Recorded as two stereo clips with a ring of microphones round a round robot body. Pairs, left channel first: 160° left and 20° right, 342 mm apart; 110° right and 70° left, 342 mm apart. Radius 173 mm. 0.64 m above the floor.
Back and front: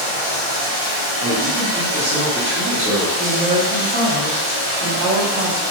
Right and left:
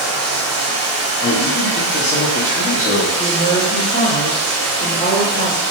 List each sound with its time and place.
0.0 s running water: 5° left, 1.7 m
1.2 s a man speaking: 70° right, 0.7 m
3.2 s a woman speaking: 40° right, 1.1 m